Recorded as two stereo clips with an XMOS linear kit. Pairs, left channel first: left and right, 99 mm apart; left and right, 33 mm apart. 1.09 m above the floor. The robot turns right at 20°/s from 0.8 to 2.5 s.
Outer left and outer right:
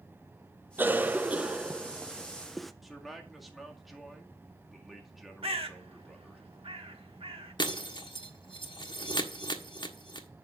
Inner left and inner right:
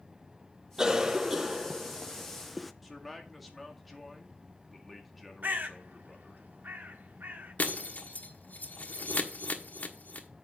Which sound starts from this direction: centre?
A man speaking, at 2.8 s.